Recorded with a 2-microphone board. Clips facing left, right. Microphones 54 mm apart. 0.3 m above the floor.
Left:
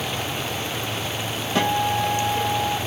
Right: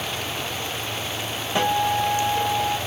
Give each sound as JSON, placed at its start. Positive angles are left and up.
{"t": 1.6, "sound": "a guitar", "side_deg": -15, "distance_m": 0.8}